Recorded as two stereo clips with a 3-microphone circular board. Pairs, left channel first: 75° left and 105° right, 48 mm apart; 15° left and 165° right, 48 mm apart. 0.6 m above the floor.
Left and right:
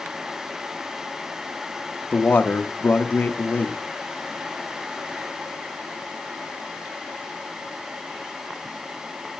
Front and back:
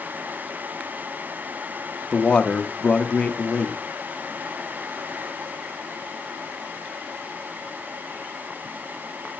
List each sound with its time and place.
2.1 s a man speaking: 70° left, 0.9 m